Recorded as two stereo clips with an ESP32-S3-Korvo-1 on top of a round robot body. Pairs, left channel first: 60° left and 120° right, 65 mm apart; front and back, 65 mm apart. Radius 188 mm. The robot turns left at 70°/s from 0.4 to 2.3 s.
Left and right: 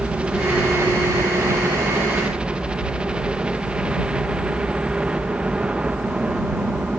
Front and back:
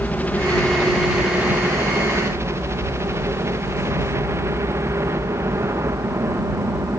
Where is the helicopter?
55° right; by 7.0 s 170° left.